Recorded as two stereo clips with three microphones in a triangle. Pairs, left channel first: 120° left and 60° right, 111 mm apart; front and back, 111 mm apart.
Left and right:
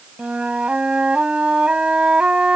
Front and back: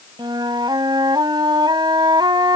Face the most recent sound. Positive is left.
turn(degrees=-140)